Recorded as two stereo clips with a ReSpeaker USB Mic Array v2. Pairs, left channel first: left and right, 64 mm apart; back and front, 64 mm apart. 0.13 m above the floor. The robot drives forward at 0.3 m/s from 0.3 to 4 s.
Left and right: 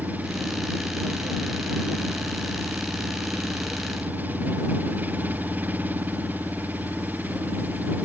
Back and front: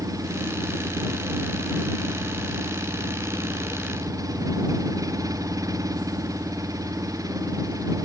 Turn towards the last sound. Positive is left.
turn(degrees=-25)